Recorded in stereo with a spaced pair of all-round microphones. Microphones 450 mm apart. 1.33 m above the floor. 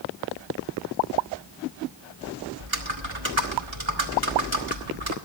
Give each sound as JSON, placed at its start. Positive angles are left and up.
{"t": 2.6, "sound": "typing on a keyboard", "side_deg": -70, "distance_m": 1.9}